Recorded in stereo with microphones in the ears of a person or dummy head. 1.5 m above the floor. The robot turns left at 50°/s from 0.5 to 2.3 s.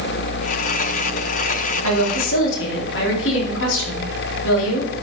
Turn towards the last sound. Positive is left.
turn(degrees=75)  # may be behind; listen again after turning